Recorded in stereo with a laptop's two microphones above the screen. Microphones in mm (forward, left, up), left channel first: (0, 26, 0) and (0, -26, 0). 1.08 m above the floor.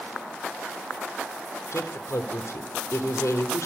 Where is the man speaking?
85° left, 3 m.